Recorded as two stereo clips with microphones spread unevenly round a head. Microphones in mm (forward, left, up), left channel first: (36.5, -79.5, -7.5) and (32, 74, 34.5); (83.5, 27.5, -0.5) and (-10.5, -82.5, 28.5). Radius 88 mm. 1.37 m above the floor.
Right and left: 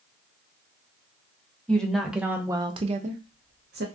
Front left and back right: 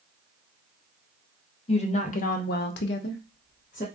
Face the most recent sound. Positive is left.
turn(degrees=105)